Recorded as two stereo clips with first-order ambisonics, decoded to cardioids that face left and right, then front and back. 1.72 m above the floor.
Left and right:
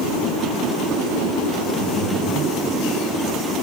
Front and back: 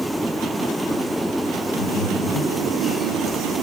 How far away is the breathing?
About 3 m.